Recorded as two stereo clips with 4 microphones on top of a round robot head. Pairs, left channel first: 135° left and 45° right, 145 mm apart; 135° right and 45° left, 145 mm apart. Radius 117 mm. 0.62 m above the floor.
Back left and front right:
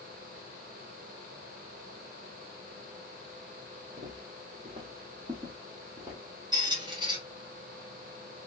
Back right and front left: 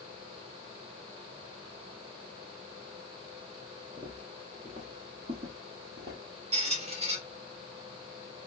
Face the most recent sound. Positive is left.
turn(degrees=10)